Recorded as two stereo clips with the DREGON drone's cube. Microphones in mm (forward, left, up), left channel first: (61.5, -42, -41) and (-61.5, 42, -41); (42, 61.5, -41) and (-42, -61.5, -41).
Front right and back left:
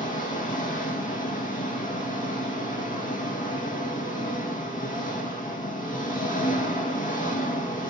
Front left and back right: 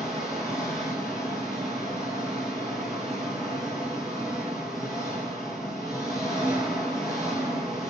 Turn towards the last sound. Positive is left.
turn(degrees=-35)